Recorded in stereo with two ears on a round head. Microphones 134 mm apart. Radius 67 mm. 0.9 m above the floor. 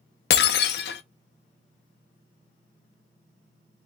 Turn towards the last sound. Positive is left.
turn(degrees=85)